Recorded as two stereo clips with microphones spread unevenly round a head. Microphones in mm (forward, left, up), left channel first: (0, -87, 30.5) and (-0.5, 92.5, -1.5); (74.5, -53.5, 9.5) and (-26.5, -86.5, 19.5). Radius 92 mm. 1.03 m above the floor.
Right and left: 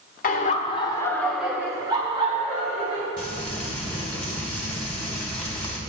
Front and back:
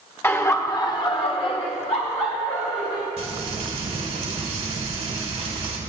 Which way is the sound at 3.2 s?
175° right.